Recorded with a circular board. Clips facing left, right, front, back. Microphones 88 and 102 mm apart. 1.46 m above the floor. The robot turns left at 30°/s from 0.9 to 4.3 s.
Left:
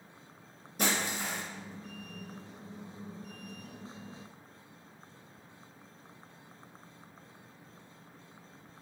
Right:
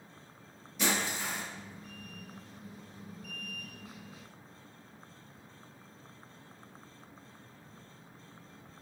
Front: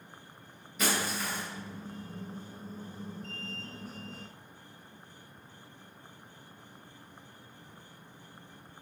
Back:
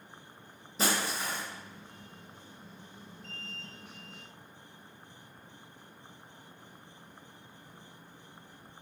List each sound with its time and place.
0.8 s breaking glass: 125° left, 1.1 m; by 1.4 s 110° left, 1.1 m